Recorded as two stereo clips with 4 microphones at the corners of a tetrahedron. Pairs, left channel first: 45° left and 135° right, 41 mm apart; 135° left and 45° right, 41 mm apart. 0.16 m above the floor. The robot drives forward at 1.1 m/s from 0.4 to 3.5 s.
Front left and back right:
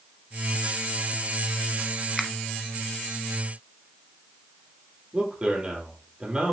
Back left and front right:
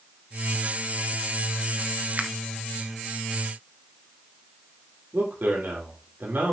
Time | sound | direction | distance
2.2 | a finger snap | 35° right | 1.1 m
5.1 | a man speaking | 70° right | 5 m